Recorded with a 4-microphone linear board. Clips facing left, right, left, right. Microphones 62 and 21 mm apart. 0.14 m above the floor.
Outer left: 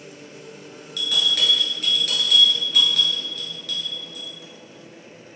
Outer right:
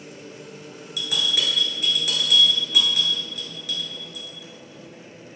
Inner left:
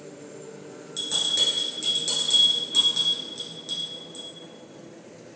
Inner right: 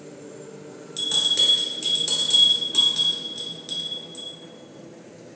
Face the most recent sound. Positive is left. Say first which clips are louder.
# outer left 2 dB, inner right 4 dB
turn(degrees=-10)  # may be behind; listen again after turning